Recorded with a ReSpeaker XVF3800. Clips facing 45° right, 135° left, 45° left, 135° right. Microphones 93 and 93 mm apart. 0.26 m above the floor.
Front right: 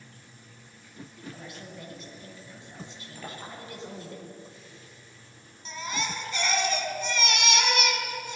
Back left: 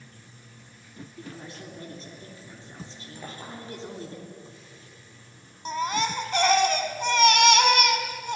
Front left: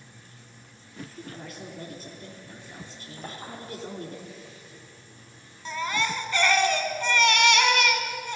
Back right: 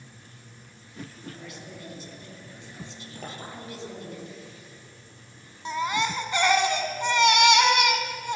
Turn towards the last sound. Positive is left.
turn(degrees=155)